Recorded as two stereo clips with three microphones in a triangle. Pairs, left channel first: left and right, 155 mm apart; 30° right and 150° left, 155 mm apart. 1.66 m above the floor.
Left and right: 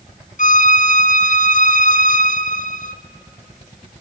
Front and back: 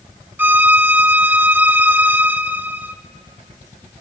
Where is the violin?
75° left, 0.6 m.